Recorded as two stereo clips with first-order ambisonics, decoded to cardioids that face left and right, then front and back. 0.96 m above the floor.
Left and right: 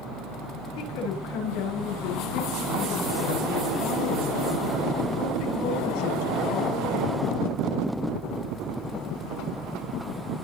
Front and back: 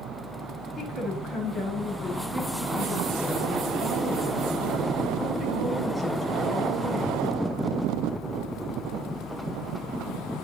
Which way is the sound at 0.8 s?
90° left.